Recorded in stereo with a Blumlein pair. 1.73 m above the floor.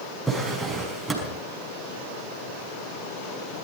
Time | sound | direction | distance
0.3 | a drawer | 5° right | 5.5 m